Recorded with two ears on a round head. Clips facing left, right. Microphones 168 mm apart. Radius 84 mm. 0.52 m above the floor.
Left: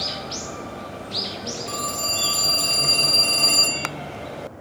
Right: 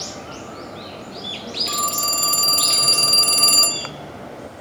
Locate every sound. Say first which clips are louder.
1.7 s a phone ringing: right 1 dB; 45° right (ahead or behind), 0.7 m